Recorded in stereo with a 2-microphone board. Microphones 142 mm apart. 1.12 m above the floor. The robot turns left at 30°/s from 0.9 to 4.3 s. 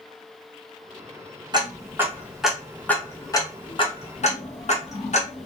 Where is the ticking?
30° right (ahead or behind), 0.8 m; by 5.5 s 50° left (ahead or behind), 0.8 m.